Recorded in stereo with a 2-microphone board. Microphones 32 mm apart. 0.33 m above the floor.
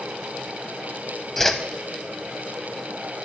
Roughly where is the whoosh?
Centre.